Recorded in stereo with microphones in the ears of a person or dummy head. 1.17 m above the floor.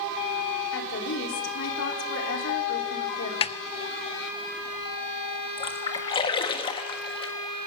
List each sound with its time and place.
0.7 s a woman speaking: 70° left (ahead or behind), 4 m
3.4 s a snare drum: 30° left (ahead or behind), 0.7 m
5.6 s a splash: 25° left (ahead or behind), 1.6 m